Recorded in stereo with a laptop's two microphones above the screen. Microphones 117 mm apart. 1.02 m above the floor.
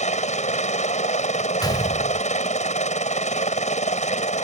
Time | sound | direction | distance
0.0 | a helicopter | 75° left (ahead or behind) | ?
1.6 | a gunshot | 35° left (ahead or behind) | ?